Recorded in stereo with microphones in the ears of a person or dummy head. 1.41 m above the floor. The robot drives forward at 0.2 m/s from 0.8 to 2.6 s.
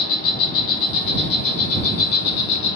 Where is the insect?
55° left (ahead or behind), 1.3 m; by 2.8 s 65° left (ahead or behind), 1.1 m.